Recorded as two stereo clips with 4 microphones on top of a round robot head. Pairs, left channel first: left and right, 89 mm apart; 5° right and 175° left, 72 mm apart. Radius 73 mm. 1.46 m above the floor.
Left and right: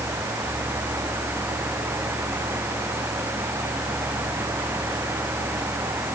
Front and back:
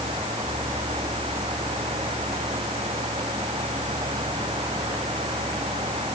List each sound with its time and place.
Only background noise.